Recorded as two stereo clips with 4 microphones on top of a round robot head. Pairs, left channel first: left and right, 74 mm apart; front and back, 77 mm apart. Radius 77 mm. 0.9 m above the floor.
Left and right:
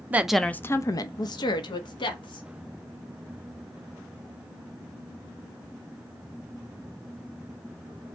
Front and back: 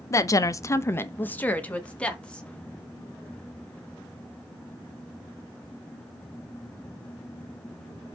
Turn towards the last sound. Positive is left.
turn(degrees=75)